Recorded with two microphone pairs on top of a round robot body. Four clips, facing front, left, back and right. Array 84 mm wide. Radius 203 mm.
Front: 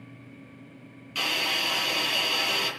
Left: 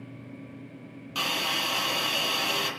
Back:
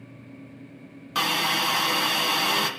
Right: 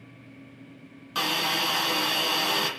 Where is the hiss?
165° right, 3 m.